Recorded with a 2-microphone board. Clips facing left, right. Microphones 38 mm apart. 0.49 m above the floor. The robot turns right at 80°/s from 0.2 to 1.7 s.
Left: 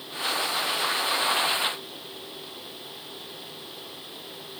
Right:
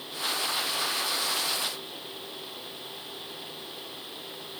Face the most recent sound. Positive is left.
No sound to turn to.